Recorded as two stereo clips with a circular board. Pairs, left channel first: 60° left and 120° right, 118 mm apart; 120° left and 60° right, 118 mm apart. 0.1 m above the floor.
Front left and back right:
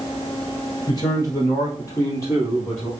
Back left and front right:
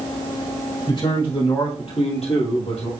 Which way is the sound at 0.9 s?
95° left.